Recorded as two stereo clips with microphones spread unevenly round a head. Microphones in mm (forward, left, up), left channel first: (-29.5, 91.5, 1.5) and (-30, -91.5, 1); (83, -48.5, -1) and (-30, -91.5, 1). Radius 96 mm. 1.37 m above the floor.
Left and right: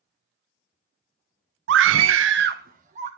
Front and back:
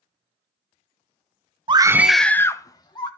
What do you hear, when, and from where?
1.7 s a scream: 110° right, 0.8 m; by 3.1 s 30° right, 1.7 m